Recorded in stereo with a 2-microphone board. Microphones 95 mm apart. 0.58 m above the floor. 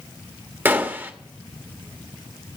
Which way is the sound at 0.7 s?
20° right (ahead or behind).